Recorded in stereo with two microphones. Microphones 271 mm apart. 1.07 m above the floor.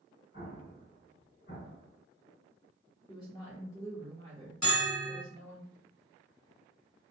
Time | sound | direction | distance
0.3 | an explosion | 55° left (ahead or behind) | 1.8 m
3.1 | a woman speaking | 15° left (ahead or behind) | 0.8 m
4.6 | a bell | 85° left | 1.2 m